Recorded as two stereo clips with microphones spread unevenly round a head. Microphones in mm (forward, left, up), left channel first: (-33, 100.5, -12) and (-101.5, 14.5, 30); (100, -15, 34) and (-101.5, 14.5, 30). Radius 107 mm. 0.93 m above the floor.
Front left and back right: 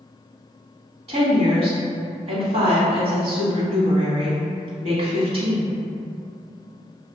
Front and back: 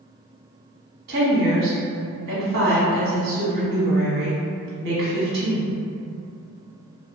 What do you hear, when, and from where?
1.1 s a woman speaking: 165° right, 1.2 m